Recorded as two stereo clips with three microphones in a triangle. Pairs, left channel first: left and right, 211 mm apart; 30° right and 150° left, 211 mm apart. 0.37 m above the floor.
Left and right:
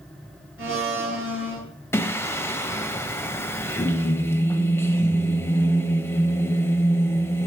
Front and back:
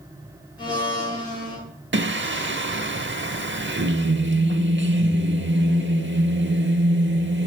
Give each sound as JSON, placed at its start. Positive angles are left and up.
{"t": 0.6, "sound": "a blender", "azimuth_deg": -100, "distance_m": 6.5}
{"t": 1.9, "sound": "singing", "azimuth_deg": 165, "distance_m": 0.7}